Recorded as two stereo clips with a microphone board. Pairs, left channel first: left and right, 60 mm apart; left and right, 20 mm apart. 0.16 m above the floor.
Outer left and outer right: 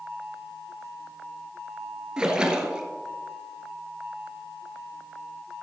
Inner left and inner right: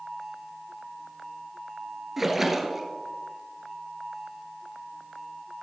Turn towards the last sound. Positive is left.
turn(degrees=-15)  # may be behind; listen again after turning